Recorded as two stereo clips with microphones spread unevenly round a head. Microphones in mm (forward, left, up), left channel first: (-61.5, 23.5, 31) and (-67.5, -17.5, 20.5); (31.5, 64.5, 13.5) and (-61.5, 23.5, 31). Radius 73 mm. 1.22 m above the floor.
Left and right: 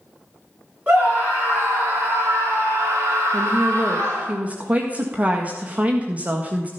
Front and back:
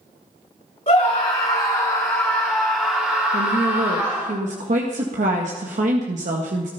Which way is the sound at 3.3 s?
155° right.